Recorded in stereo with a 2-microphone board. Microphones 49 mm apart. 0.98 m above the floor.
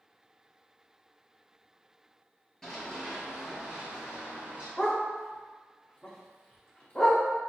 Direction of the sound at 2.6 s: 10° left (ahead or behind).